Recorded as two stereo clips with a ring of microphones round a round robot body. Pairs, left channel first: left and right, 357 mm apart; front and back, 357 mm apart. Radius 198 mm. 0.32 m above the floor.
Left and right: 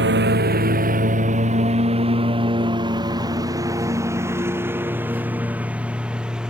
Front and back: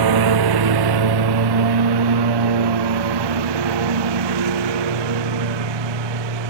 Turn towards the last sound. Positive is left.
turn(degrees=180)